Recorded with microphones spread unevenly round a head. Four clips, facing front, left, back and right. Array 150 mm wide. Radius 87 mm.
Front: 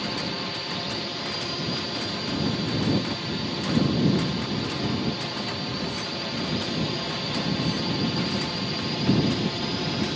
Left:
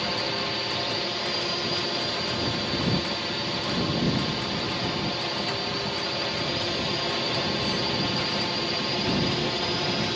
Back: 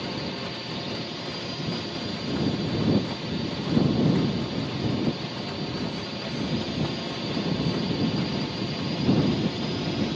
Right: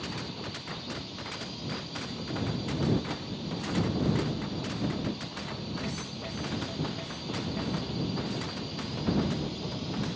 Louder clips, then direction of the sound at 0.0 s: Left 9 dB, front 1 dB; 95° left.